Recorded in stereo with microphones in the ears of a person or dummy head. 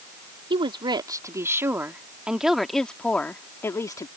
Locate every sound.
0.5 s a woman speaking: 25° right (ahead or behind); by 4.1 s 20° left (ahead or behind)